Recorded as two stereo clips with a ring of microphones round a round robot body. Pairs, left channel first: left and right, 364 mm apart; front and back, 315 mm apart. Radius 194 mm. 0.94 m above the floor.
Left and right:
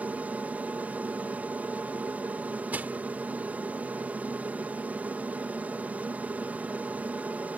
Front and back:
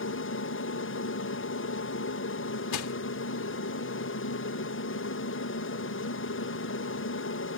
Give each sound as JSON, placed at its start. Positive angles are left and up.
{"t": 0.0, "sound": "an aircraft", "azimuth_deg": -5}
{"t": 2.7, "sound": "crushing", "azimuth_deg": -5}